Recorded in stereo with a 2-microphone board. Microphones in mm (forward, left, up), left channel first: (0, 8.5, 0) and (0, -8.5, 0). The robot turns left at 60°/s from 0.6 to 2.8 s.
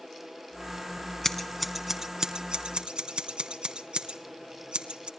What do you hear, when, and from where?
1.2 s scissors: 25° left (ahead or behind), 2 m; by 5.1 s 65° right (ahead or behind), 2 m